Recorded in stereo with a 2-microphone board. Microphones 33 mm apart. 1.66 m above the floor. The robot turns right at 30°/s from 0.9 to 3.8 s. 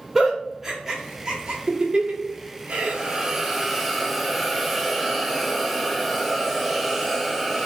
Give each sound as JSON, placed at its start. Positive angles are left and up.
{"t": 0.1, "sound": "a giggle", "side_deg": -10, "distance_m": 0.8}
{"t": 2.7, "sound": "a hiss", "azimuth_deg": -35, "distance_m": 0.7}